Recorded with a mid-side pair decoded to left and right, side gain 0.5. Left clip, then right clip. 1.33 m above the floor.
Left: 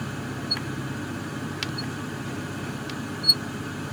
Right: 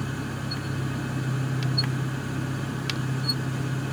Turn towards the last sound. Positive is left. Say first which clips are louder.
# even
turn(degrees=-40)